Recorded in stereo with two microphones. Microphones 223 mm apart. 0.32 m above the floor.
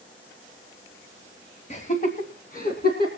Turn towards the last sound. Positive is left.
turn(degrees=40)  # may be behind; listen again after turning